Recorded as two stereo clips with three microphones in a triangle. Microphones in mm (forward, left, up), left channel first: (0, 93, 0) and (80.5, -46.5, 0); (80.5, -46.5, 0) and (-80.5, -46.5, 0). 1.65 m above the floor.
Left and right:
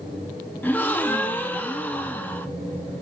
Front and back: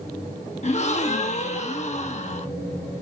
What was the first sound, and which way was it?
A gasp, 40° left.